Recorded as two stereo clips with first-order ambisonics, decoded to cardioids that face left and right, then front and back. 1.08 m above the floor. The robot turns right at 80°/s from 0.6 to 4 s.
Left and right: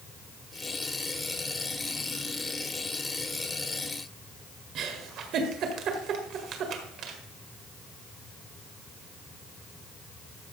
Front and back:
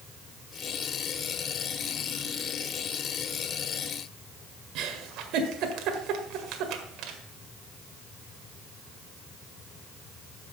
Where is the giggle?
140° right, 1.7 m.